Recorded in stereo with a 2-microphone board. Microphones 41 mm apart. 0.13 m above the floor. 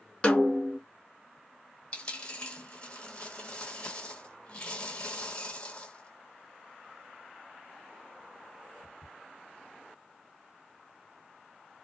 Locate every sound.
0.2 s a snare drum: 30° left (ahead or behind), 0.9 m
1.9 s a dropped coin: 35° left (ahead or behind), 1.2 m